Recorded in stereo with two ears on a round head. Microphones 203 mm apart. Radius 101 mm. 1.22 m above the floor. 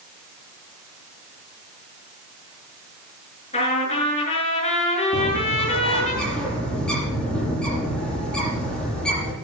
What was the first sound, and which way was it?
A trumpet, 30° left (ahead or behind).